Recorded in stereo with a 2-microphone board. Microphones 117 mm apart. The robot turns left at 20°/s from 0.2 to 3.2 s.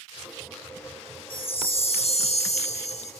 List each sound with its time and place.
1.3 s a chime: 125° left, 0.5 m; by 3.1 s 90° left, 0.5 m